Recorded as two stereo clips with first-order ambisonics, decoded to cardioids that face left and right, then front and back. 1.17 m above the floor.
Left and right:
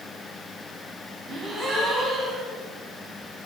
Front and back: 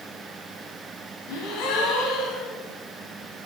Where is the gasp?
20° right, 2 m.